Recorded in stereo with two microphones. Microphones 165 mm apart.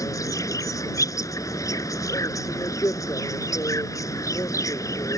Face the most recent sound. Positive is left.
turn(degrees=20)  # may be behind; listen again after turning